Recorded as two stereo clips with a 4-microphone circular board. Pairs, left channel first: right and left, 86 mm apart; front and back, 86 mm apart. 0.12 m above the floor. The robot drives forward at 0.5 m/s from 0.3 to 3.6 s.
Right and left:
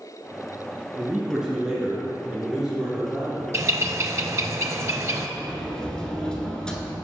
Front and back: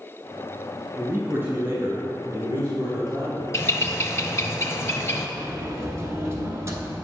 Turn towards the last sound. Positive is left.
turn(degrees=-165)